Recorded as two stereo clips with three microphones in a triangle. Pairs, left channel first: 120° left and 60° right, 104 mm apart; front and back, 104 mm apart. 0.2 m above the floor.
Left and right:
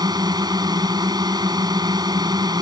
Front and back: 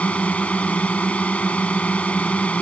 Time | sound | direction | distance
0.0 | a drone | 70° right | ?